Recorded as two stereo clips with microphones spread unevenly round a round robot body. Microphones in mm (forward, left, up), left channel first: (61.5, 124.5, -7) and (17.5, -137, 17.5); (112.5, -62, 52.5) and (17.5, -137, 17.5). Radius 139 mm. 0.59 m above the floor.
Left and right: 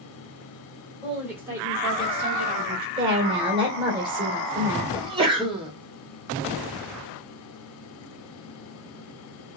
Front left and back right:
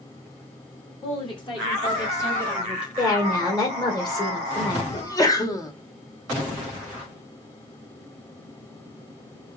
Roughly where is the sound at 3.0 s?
Ahead right.